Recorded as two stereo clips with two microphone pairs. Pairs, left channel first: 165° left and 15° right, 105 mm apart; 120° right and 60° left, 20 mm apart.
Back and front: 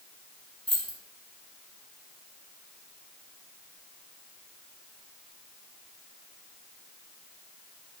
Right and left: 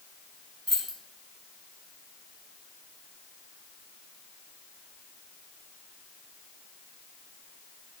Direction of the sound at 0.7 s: 160° left.